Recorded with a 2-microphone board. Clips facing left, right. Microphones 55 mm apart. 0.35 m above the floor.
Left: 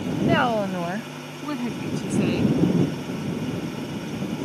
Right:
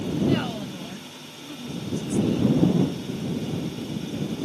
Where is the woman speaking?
45° left (ahead or behind); by 2.5 s 70° left (ahead or behind).